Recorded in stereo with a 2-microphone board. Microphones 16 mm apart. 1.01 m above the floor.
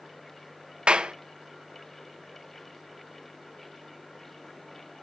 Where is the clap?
75° right (ahead or behind), 0.5 m.